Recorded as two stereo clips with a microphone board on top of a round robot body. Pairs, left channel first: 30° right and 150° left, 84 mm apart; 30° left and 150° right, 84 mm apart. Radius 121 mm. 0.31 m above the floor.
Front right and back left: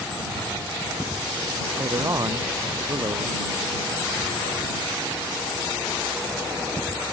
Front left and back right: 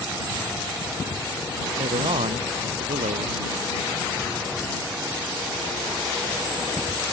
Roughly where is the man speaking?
Behind right.